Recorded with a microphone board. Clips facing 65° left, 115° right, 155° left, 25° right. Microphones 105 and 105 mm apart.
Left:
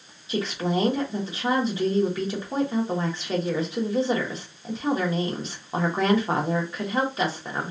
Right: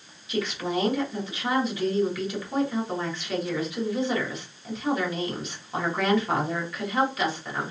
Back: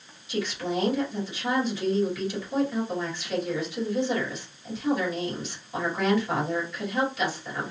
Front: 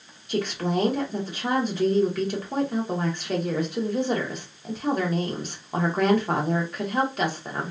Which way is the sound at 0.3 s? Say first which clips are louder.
Left 2 dB, front 3 dB; 10° left.